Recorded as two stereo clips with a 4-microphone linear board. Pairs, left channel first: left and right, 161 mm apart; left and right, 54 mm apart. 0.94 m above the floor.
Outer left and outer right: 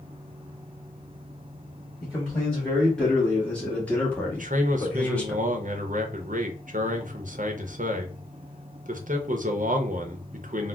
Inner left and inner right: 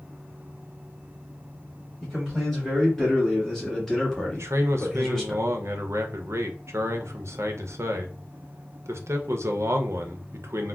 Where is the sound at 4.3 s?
60° right (ahead or behind), 0.5 m.